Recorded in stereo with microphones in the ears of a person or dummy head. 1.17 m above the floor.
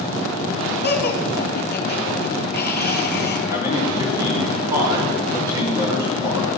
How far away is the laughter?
About 2.0 m.